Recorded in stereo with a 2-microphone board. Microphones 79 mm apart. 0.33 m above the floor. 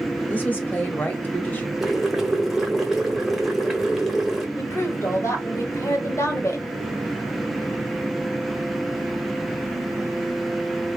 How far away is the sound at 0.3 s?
About 1.1 m.